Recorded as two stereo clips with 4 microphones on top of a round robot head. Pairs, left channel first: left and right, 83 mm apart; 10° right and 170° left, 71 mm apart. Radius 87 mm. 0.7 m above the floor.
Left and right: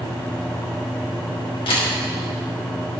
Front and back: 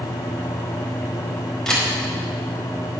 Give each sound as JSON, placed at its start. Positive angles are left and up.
{"t": 1.7, "sound": "a camera shutter", "azimuth_deg": 70, "distance_m": 4.5}